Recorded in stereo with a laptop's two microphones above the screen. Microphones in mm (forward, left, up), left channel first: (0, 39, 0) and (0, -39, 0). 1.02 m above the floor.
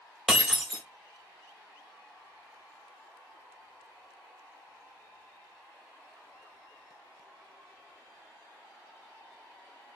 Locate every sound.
0.3 s breaking glass: 10° right (ahead or behind), 1.3 m